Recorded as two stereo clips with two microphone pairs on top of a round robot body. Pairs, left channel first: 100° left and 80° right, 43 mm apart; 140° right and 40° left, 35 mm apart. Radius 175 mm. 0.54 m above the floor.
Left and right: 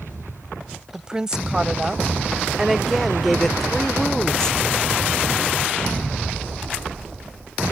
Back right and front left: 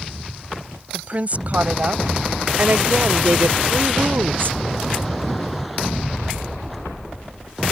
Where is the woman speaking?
5° right; by 4.6 s 30° left.